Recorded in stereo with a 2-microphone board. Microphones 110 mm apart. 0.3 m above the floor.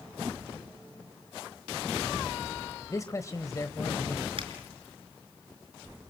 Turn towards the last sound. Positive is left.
turn(degrees=-55)  # may be behind; listen again after turning